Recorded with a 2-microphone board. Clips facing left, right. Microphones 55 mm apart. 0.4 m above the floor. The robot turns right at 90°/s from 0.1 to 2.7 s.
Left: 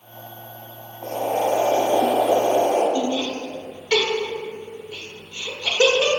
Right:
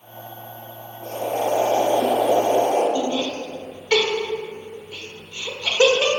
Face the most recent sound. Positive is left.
turn(degrees=-15)  # may be behind; listen again after turning